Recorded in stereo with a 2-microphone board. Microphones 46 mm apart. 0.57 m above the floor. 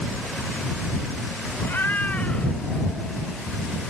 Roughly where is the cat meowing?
Left.